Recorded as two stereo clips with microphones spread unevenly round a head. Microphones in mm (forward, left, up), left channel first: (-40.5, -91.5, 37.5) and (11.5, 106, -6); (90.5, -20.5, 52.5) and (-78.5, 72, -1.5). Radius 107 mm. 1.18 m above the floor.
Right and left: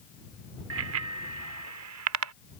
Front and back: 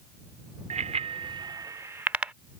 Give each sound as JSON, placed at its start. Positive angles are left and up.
{"t": 0.7, "sound": "a bicycle bell", "azimuth_deg": 90}